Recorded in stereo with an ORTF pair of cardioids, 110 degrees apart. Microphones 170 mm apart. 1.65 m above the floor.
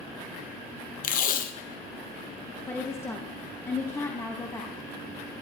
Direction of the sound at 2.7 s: 15° left.